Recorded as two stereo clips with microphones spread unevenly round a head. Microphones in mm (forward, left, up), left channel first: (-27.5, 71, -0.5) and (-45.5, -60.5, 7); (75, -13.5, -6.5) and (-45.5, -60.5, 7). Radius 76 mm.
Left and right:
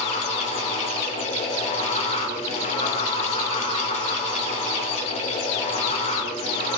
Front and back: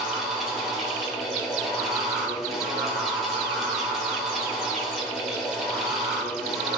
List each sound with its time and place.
0.0 s a fan: 115° left, 1.3 m